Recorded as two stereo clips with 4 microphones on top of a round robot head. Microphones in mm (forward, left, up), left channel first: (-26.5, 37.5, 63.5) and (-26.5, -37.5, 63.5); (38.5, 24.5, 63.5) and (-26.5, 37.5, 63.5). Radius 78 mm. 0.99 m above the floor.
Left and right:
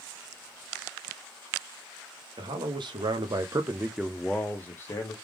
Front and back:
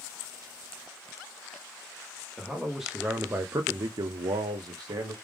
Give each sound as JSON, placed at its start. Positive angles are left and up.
{"t": 2.4, "sound": "a man speaking", "azimuth_deg": -100, "distance_m": 1.1}